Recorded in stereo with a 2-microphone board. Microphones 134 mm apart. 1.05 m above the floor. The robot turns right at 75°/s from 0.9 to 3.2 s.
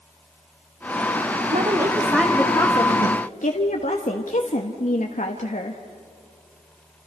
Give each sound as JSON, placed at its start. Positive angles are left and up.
{"t": 1.5, "sound": "a woman speaking", "azimuth_deg": -50, "distance_m": 1.5}